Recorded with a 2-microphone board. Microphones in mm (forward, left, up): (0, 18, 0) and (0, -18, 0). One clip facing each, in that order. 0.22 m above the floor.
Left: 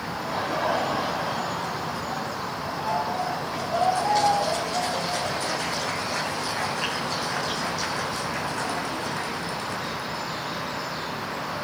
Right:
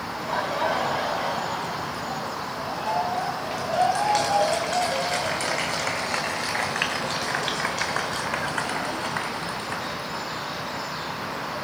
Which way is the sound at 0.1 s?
75° right (ahead or behind).